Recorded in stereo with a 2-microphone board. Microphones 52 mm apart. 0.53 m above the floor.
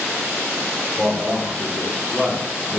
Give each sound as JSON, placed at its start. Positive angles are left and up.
{"t": 1.0, "sound": "a man speaking", "side_deg": 0, "distance_m": 1.4}